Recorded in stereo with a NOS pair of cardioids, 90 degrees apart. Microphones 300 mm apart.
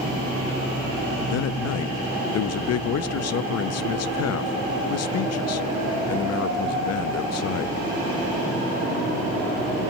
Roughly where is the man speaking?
Ahead left.